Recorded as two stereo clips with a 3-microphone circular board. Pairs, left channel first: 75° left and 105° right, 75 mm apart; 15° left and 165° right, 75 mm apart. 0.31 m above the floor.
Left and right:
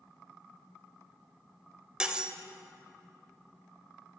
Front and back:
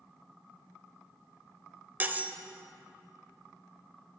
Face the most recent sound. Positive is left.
turn(degrees=-165)